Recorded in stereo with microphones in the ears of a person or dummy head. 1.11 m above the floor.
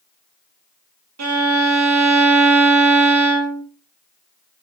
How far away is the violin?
About 1.2 m.